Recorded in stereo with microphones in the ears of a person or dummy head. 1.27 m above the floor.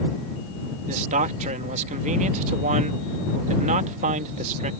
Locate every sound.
0.9 s a man speaking: 40° right (ahead or behind)